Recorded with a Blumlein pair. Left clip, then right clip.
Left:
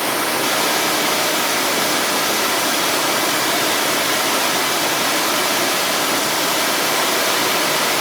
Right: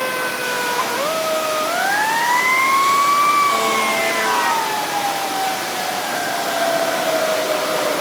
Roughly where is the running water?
Ahead left.